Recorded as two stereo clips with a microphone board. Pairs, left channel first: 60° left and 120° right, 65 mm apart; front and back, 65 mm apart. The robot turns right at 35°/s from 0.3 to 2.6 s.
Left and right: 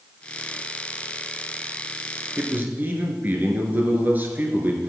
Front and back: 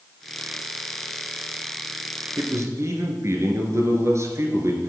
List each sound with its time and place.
2.4 s a man speaking: straight behind, 1.8 m; by 4.9 s 170° right, 1.8 m